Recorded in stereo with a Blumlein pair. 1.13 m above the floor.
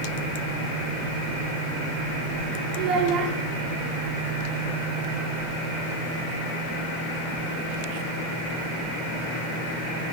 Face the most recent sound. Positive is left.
turn(degrees=-40)